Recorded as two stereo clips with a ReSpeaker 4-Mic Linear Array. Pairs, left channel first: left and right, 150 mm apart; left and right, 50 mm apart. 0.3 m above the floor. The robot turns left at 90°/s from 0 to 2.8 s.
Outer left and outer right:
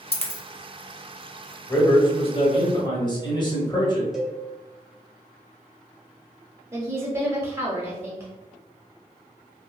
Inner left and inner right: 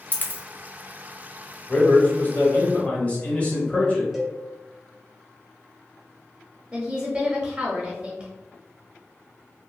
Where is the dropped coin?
35° left (ahead or behind), 0.5 m; by 0.4 s 45° left (ahead or behind), 0.5 m.